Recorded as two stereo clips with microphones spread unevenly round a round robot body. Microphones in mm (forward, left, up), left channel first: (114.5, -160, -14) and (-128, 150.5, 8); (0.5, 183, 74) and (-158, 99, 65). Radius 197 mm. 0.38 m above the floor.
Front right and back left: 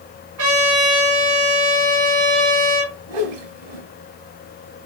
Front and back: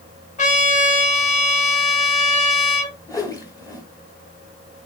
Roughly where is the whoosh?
Left.